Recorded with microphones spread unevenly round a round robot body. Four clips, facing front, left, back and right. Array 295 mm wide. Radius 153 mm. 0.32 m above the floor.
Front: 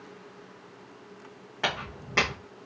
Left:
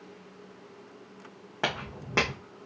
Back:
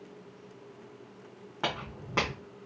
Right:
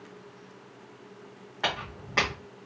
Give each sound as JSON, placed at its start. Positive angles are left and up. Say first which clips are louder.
{"t": 1.6, "sound": "footsteps", "louder": "even, front 3 dB", "azimuth_deg": 100, "distance_m": 1.1}